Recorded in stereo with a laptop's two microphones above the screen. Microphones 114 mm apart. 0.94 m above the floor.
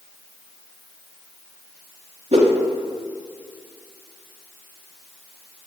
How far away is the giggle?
No giggle in this recording.